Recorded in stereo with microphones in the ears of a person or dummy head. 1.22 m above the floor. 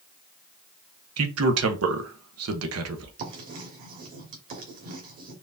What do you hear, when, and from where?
1.2 s a man speaking: 80° right, 1.0 m
3.2 s writing: 45° right (ahead or behind), 1.4 m